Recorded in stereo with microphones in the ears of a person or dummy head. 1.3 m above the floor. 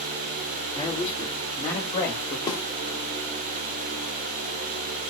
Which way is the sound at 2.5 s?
15° left (ahead or behind).